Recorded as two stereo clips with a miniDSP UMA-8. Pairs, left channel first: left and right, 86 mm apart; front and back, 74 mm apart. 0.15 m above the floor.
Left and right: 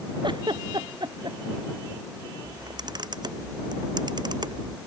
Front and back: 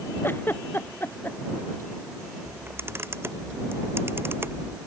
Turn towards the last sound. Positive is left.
turn(degrees=-125)